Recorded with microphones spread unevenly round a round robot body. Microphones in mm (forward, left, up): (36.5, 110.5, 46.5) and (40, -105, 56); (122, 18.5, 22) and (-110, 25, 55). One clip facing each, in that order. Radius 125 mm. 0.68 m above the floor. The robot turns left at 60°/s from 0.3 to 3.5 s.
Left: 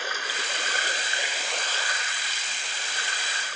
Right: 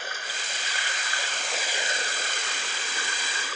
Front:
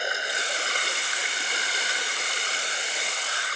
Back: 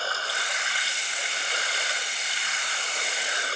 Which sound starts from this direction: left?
Running water, at 0.0 s.